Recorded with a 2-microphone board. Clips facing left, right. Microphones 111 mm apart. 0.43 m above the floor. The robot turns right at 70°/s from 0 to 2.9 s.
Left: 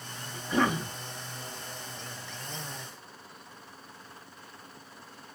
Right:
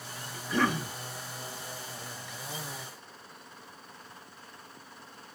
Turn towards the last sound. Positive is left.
turn(degrees=-75)